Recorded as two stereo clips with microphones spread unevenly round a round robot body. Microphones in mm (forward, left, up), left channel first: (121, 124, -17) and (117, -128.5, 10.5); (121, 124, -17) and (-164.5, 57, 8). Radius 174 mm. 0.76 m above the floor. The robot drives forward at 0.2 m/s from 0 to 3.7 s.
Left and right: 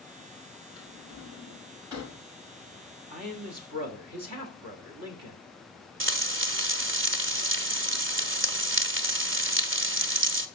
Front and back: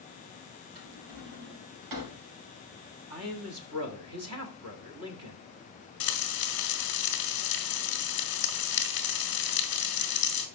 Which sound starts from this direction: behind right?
A man speaking, at 3.1 s.